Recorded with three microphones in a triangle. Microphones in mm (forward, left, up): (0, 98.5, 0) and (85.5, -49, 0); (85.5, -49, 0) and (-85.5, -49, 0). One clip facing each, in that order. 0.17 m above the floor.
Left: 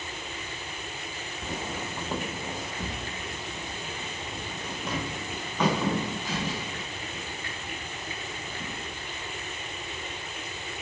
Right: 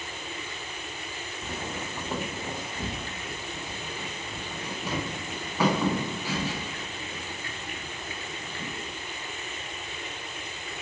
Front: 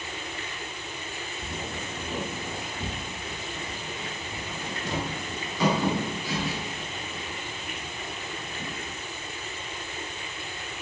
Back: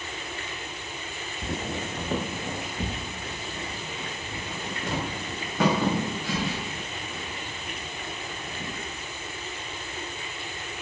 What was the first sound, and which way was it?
Footsteps, 165° right.